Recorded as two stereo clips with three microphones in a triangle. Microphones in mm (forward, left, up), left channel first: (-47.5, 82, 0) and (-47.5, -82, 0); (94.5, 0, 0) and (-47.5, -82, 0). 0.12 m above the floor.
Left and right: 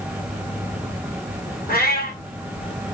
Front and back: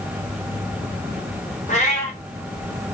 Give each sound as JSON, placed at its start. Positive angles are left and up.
{"t": 1.7, "sound": "a cat meowing", "azimuth_deg": 70, "distance_m": 1.2}